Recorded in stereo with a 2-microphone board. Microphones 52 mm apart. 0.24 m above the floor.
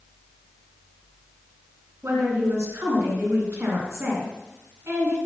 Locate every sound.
2.0 s a woman speaking: 55° right (ahead or behind), 3 m